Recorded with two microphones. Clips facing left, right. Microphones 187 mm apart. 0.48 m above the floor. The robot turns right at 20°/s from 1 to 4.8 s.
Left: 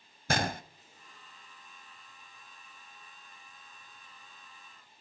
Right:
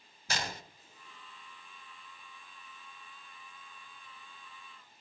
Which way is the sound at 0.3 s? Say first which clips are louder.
Left 8 dB; 55° left (ahead or behind).